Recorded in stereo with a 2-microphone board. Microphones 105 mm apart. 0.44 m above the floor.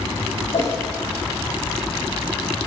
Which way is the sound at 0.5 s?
60° left (ahead or behind).